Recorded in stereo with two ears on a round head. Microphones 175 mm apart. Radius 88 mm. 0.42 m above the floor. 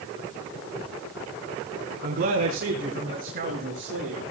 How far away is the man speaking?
About 3.5 m.